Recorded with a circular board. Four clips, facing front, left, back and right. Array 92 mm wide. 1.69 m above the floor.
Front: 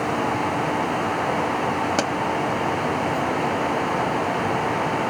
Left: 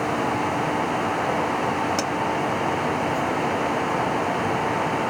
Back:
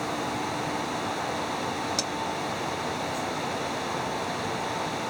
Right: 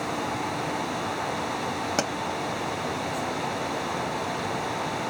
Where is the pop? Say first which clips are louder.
Left 2 dB, front 9 dB; 15° right.